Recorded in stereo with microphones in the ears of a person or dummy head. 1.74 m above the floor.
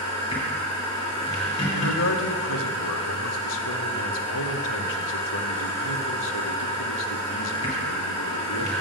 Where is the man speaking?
65° left (ahead or behind), 0.6 m.